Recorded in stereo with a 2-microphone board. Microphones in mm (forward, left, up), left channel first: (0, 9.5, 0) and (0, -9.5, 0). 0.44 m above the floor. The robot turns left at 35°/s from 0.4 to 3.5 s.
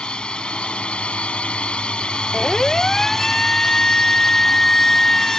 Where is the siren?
20° left (ahead or behind); by 5.4 s 35° left (ahead or behind).